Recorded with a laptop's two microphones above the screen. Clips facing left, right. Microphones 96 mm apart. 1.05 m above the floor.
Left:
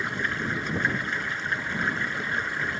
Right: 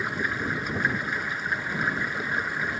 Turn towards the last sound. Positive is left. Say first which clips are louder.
# right 1 dB
turn(degrees=-10)  # may be behind; listen again after turning